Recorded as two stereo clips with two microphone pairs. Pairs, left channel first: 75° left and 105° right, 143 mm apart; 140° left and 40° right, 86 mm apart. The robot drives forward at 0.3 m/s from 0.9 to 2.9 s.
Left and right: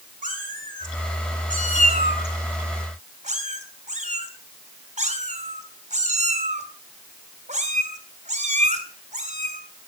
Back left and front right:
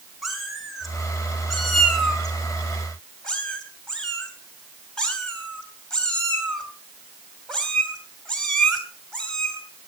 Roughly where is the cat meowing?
Behind right.